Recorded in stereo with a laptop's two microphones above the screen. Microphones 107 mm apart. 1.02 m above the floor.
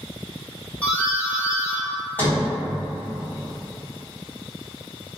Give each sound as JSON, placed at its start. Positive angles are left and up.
{"t": 0.8, "sound": "a doorbell", "side_deg": 15, "distance_m": 1.1}
{"t": 2.2, "sound": "a sliding door", "side_deg": 20, "distance_m": 1.6}